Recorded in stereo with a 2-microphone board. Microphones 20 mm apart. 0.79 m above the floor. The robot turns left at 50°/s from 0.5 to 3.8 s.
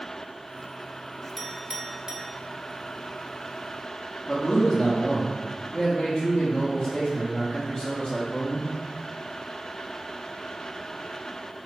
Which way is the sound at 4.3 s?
45° left (ahead or behind).